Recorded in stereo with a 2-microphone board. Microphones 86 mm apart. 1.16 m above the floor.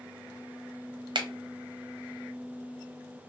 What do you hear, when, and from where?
1.1 s a finger snap: 65° right (ahead or behind), 0.6 m